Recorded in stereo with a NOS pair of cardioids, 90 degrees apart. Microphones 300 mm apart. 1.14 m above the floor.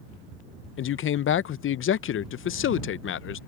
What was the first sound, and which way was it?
A man speaking, 45° left.